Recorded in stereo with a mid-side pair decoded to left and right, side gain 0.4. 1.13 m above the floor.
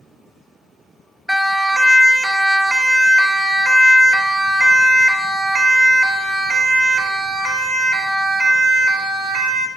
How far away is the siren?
About 4 m.